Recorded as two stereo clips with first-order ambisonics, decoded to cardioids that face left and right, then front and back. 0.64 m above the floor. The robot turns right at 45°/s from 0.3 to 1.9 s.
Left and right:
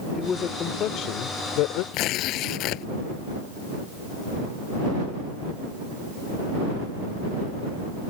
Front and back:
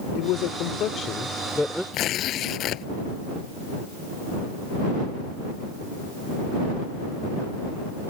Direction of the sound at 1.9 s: 50° left.